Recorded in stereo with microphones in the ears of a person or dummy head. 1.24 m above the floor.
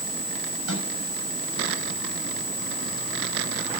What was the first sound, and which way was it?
A microwave, 70° right (ahead or behind).